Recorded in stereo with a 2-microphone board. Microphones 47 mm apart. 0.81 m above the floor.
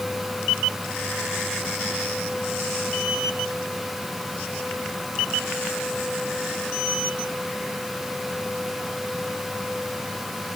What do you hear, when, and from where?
Only background noise.